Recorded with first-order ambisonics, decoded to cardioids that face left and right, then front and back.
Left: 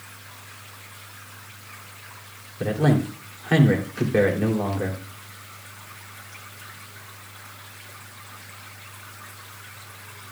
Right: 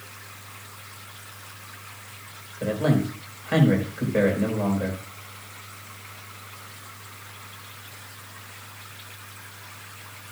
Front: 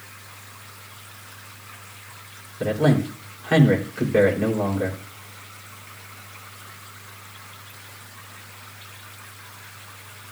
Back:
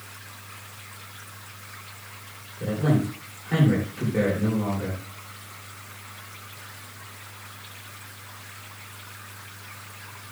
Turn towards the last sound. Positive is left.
turn(degrees=55)